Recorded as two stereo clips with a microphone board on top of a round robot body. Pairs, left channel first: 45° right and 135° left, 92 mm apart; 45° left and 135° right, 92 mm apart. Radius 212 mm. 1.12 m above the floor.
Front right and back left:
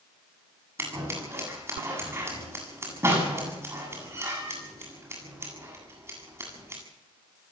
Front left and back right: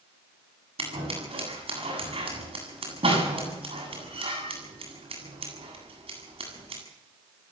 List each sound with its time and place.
0.8 s scissors: 160° right, 8 m